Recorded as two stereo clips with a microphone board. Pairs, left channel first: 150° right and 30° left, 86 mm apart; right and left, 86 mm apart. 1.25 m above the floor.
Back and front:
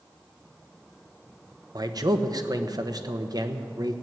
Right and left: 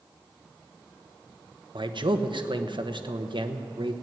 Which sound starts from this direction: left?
A man speaking, at 1.8 s.